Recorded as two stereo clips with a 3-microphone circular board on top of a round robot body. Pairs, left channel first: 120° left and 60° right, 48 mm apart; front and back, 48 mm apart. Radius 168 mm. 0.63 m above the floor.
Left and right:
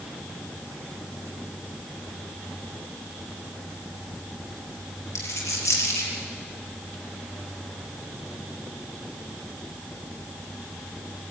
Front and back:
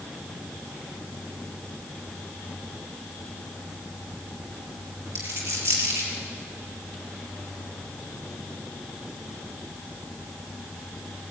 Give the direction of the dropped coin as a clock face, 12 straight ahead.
7 o'clock.